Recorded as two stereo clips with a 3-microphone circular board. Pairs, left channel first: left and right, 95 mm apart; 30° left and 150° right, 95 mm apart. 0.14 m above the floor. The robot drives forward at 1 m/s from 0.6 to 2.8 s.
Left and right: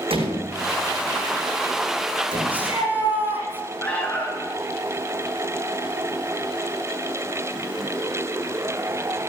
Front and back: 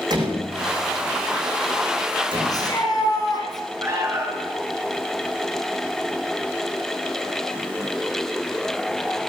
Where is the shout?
20° right, 7 m.